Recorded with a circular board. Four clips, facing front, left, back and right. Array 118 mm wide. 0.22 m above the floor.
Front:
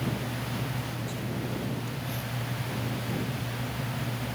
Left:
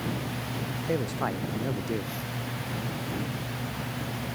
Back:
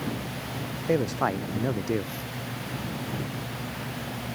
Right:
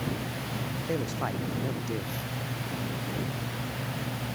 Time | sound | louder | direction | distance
0.9 | a man speaking | left 3 dB, back 10 dB | 170° left | ?